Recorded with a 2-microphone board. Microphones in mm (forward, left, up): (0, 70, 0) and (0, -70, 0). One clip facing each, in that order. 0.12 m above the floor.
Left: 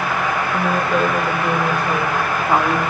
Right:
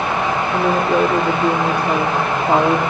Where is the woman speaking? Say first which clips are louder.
Right 4 dB; 80° right, 6.5 m; by 2.8 s 70° right (ahead or behind), 6 m.